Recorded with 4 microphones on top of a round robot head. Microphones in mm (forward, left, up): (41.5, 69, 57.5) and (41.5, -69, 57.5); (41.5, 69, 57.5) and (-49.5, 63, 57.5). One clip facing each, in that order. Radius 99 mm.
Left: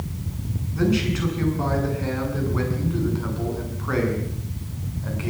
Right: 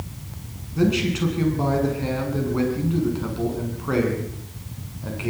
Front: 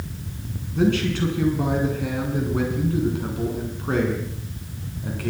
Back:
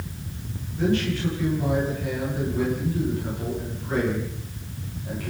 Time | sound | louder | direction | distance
0.8 | a man speaking | right 1 dB, front 3 dB | 25° right | 7.5 m